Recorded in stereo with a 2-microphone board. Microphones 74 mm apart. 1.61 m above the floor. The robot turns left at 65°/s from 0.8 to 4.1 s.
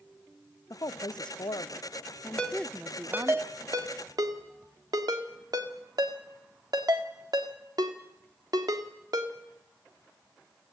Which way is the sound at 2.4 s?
15° left (ahead or behind).